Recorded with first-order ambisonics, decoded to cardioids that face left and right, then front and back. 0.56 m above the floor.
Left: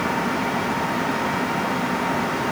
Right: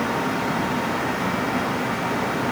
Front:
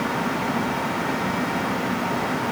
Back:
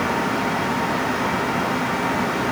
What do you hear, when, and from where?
Only background noise.